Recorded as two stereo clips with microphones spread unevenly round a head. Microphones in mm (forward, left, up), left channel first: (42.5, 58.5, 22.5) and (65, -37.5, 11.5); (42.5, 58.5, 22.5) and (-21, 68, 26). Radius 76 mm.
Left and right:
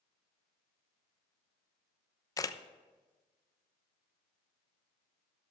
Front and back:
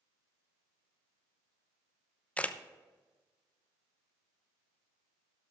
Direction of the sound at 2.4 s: 50° left.